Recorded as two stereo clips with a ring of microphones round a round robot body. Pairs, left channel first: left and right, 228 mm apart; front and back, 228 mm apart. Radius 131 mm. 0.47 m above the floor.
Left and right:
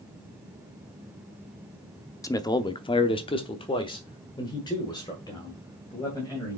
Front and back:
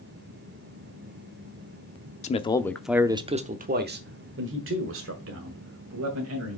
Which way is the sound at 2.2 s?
25° left.